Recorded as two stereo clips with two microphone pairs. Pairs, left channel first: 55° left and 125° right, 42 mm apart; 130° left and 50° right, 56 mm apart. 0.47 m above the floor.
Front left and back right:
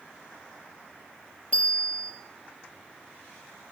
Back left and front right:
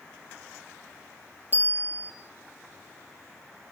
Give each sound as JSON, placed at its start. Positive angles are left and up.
{"t": 1.5, "sound": "a bicycle bell", "azimuth_deg": 0, "distance_m": 9.5}